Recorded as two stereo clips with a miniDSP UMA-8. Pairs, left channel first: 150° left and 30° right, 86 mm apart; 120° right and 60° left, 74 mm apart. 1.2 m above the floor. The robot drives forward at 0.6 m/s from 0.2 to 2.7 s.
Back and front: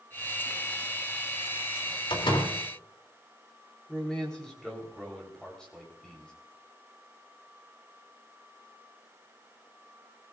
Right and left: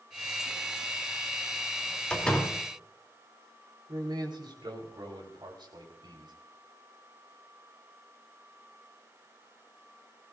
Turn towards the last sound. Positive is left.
turn(degrees=70)